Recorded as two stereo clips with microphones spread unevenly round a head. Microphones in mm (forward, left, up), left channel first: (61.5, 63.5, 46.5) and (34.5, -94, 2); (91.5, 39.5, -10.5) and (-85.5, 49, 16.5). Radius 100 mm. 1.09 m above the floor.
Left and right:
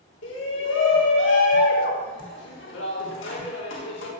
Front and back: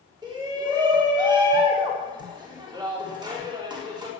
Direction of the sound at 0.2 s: 110° left.